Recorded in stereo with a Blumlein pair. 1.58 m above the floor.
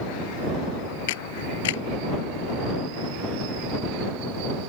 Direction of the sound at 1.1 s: 55° left.